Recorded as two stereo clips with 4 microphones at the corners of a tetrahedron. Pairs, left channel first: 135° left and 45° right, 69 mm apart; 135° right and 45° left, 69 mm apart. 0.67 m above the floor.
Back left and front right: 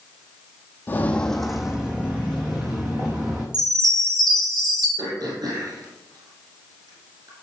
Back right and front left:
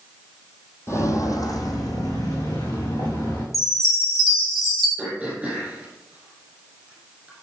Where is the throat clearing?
30° right, 4 m.